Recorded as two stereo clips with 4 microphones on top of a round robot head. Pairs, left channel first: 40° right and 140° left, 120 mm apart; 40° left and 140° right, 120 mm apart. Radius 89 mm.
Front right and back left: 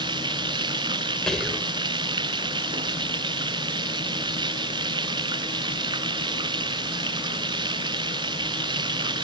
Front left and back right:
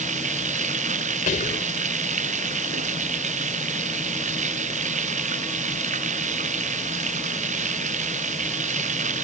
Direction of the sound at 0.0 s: 165° right.